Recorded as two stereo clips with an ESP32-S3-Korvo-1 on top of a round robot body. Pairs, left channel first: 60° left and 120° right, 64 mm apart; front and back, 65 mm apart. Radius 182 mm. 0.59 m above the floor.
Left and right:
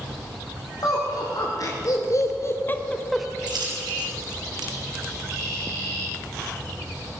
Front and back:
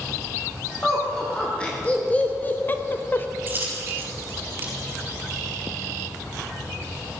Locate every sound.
0.8 s laughter: 75° left, 2.5 m; by 3.3 s 40° right, 1.1 m
3.5 s a dropped coin: 115° right, 4.5 m